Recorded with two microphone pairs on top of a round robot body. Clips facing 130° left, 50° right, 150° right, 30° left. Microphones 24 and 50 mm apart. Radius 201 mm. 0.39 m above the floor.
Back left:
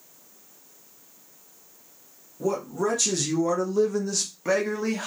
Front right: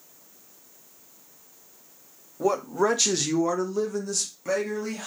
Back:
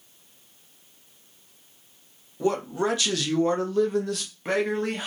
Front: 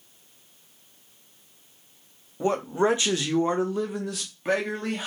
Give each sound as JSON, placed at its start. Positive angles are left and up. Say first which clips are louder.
{"t": 2.4, "sound": "a man speaking", "louder": "front right 3 dB, front 1 dB", "azimuth_deg": -20, "distance_m": 1.1}